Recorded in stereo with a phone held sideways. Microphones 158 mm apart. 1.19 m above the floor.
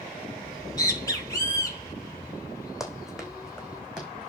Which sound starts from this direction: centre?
Running footsteps, at 2.8 s.